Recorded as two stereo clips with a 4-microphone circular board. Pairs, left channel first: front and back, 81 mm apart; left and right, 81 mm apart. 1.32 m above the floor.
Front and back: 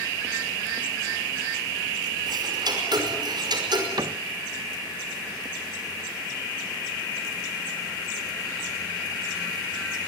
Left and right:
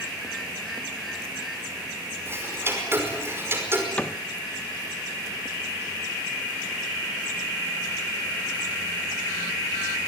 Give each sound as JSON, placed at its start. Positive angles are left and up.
{"t": 2.3, "sound": "ticking", "azimuth_deg": -150, "distance_m": 5.0}
{"t": 4.0, "sound": "a cupboard door", "azimuth_deg": 160, "distance_m": 0.8}